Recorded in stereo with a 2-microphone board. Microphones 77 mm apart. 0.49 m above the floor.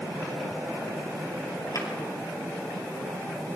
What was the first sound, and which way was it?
A drawer, 55° left (ahead or behind).